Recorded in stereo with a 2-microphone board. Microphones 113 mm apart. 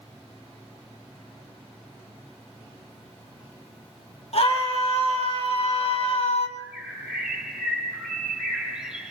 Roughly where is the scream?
Left.